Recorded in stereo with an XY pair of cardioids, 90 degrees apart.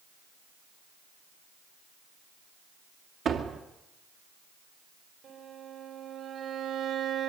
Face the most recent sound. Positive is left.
turn(degrees=-70)